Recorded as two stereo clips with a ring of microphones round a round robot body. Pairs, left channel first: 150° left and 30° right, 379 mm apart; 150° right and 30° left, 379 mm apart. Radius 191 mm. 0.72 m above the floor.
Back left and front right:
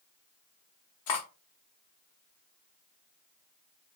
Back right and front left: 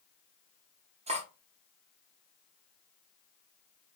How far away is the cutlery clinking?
About 0.6 m.